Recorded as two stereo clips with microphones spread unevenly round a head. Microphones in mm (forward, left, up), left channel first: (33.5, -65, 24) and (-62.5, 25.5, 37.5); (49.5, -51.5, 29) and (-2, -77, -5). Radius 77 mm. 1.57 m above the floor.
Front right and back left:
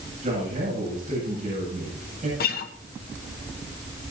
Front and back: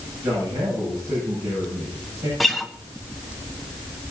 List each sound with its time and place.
0.2 s a man speaking: 165° left, 8.5 m
2.4 s a guitar: 50° right, 1.3 m